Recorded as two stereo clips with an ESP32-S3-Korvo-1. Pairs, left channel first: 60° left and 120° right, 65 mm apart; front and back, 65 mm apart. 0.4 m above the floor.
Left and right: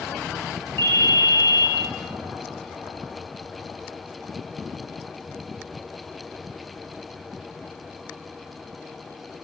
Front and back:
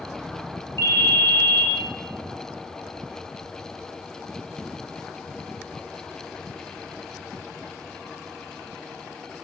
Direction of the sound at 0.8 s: 15° left.